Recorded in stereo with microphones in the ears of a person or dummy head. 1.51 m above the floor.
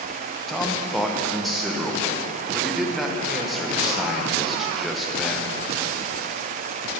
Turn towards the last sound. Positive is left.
turn(degrees=5)  # may be behind; listen again after turning